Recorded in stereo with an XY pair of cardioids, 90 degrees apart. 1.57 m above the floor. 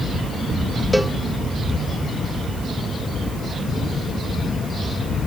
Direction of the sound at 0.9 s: 5° right.